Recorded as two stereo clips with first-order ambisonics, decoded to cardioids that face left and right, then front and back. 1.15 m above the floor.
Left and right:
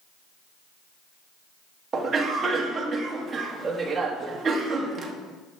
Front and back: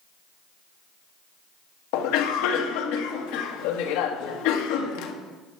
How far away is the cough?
About 1.5 m.